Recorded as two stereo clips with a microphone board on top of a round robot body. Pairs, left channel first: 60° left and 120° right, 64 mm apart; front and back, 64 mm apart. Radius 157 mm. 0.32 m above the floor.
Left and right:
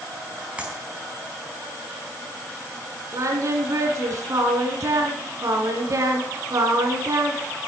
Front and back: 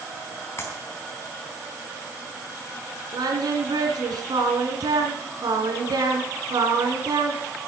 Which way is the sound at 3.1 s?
160° right.